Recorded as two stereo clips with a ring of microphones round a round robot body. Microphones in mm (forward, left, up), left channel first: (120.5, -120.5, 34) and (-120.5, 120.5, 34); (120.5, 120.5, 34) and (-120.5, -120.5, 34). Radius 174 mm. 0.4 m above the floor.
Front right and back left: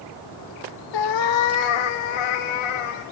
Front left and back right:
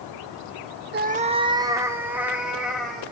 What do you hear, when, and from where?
0.9 s a cat meowing: 70° right, 1.2 m; by 3.0 s 45° right, 3.5 m